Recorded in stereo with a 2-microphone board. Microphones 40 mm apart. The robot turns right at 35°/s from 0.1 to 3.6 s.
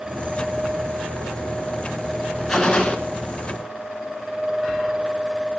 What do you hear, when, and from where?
2.5 s a gunshot: 15° left (ahead or behind), 0.8 m; by 3.0 s 25° left (ahead or behind), 0.8 m